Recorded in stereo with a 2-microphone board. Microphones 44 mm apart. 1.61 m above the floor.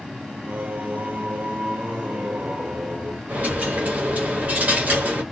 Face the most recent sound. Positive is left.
turn(degrees=-30)  # may be behind; listen again after turning